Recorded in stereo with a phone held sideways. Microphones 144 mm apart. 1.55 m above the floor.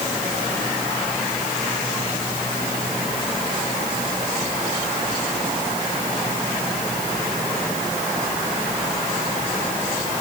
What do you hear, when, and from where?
Only background noise.